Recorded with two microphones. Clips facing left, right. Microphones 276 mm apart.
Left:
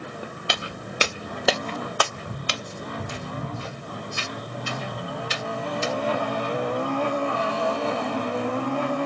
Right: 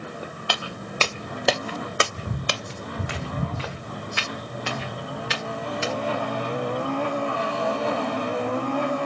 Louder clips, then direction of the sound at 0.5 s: Right 1 dB; 20° left (ahead or behind).